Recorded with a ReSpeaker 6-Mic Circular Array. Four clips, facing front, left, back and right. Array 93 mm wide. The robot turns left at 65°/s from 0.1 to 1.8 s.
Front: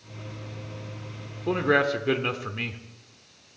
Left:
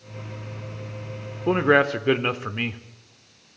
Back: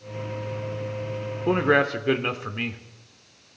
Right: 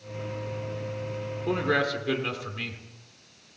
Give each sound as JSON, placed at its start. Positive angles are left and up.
{"t": 1.5, "sound": "a man speaking", "azimuth_deg": 125, "distance_m": 1.1}